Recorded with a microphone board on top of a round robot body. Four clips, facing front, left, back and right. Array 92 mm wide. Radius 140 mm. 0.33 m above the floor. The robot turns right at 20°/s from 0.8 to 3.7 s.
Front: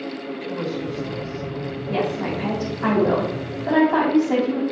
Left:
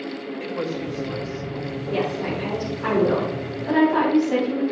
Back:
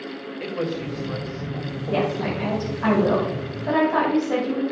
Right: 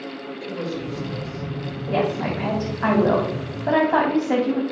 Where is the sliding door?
No sliding door in this recording.